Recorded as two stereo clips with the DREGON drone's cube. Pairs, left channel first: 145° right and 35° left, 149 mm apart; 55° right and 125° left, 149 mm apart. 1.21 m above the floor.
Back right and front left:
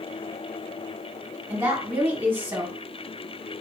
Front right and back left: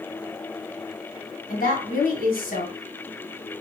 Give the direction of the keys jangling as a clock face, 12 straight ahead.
I don't hear keys jangling.